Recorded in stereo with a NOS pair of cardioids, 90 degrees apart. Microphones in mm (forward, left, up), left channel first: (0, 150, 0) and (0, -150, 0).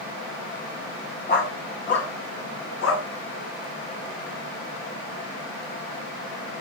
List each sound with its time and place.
1.3 s a dog barking: 35° left, 4 m; by 3.1 s 50° left, 5 m